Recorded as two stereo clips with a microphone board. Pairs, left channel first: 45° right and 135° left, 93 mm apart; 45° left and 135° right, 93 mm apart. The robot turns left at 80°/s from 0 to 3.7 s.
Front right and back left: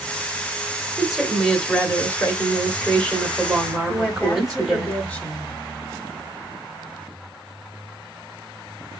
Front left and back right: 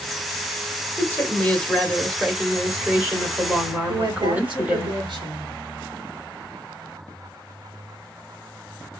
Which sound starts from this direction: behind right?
A woman speaking, at 3.9 s.